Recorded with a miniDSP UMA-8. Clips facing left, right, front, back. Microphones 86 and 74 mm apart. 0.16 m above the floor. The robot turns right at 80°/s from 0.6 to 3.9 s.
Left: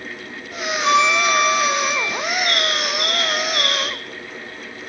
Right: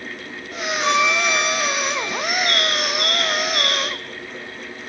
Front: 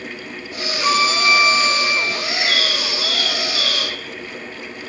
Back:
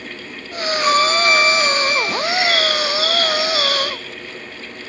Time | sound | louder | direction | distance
0.8 | a violin | left 3 dB, back 2 dB | 120° right | 0.7 m
2.2 | a bird | even, back 4 dB | 140° right | 1.1 m